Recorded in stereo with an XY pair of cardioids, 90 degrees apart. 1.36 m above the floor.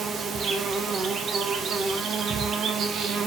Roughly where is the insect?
Ahead right.